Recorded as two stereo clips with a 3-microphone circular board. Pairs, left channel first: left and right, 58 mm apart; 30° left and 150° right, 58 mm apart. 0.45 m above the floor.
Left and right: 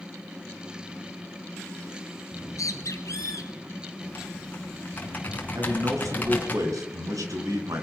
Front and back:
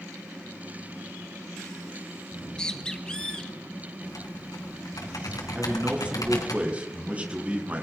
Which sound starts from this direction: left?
A bird, at 2.4 s.